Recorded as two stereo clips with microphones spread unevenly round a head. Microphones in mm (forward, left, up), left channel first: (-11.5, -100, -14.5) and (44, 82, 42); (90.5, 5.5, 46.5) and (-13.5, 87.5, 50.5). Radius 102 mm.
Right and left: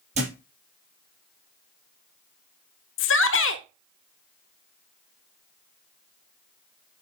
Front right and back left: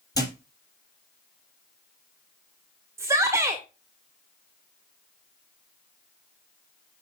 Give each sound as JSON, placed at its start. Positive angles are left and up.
{"t": 0.1, "sound": "a thud", "azimuth_deg": 25, "distance_m": 5.0}
{"t": 3.0, "sound": "a shout", "azimuth_deg": -140, "distance_m": 1.2}